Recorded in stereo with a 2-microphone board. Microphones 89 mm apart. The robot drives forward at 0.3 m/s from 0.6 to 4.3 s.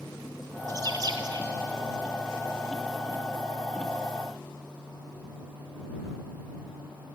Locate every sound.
0.7 s a bird: 45° right (ahead or behind), 0.7 m; by 1.5 s 55° right (ahead or behind), 0.6 m